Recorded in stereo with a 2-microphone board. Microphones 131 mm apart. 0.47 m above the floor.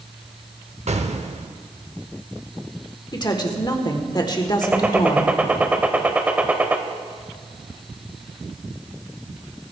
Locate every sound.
0.9 s an explosion: 60° right (ahead or behind), 0.8 m
3.1 s a woman speaking: 35° left (ahead or behind), 1.4 m
4.6 s a gunshot: 10° right (ahead or behind), 0.9 m